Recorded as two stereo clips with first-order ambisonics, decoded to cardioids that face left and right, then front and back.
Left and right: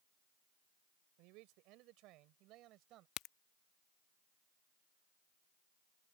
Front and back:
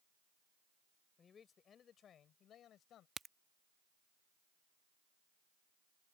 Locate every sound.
1.2 s a man speaking: 70° right; by 3.1 s 50° right
3.2 s a crack: 110° left